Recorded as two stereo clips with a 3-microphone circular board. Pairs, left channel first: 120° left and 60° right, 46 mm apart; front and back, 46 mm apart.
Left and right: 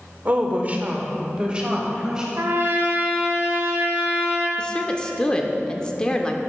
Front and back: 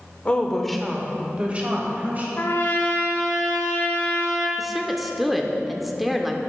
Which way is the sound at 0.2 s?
45° right.